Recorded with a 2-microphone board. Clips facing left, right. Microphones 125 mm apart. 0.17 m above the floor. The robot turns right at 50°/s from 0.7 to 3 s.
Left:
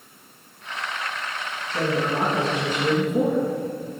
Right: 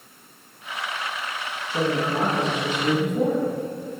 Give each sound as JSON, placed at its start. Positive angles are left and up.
{"t": 1.7, "sound": "a man speaking", "azimuth_deg": -35, "distance_m": 3.5}